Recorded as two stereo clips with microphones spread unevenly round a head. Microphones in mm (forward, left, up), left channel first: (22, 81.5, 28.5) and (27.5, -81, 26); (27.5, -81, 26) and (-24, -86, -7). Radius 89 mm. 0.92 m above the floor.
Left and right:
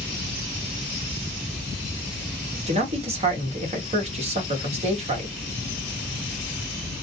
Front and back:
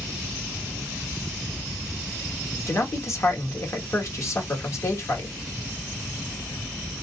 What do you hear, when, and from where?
2.7 s a man speaking: 40° right, 1.5 m